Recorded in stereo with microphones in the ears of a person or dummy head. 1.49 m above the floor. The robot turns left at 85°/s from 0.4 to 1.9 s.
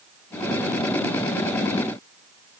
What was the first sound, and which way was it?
Only background noise.